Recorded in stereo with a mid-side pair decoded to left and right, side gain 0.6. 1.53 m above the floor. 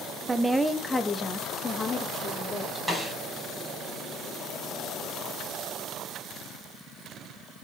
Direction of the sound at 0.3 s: 20° right.